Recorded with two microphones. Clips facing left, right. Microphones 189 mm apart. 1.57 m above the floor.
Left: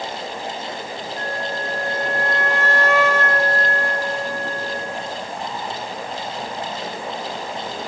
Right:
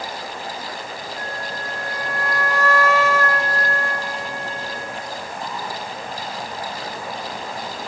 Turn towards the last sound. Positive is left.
turn(degrees=65)  # may be behind; listen again after turning